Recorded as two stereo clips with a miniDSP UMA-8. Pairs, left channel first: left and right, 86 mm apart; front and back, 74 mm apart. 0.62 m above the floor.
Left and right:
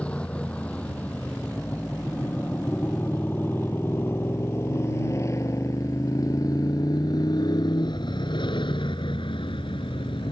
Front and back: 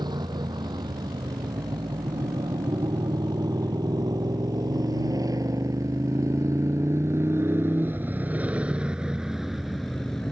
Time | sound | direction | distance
0.0 | a motorcycle | 165° left | ?